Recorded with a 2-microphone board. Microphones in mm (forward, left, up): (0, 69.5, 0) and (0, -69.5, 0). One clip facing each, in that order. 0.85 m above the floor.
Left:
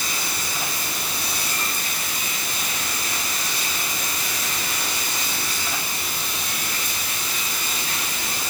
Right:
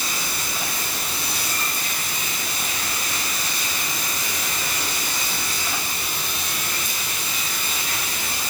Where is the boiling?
I don't hear boiling.